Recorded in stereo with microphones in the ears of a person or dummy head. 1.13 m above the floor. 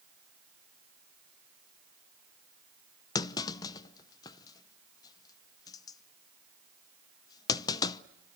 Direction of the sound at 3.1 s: 20° left (ahead or behind).